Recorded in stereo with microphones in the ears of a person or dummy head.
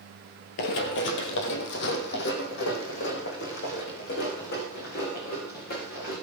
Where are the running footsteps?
45° left (ahead or behind), 1.8 m; by 6.1 s 50° left (ahead or behind), 8.5 m.